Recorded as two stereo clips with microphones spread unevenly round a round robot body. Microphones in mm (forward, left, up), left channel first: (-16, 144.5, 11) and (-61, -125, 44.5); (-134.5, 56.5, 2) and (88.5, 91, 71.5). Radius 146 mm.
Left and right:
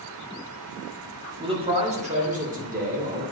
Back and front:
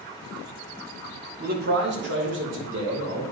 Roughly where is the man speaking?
Ahead right.